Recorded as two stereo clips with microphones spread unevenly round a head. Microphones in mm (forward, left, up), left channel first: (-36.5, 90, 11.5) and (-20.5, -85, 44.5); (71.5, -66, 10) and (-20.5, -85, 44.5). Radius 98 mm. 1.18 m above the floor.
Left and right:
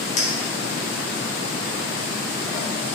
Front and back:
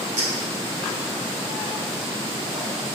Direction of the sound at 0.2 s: 145° left.